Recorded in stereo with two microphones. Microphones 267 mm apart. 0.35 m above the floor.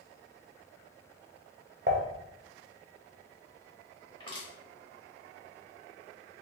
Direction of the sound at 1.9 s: 40° right (ahead or behind).